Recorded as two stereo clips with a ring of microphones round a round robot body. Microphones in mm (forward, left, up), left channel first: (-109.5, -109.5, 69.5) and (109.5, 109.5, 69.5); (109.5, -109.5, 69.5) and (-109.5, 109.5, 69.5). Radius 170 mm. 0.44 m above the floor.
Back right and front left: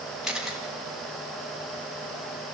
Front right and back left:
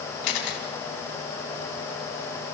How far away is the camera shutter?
About 4 m.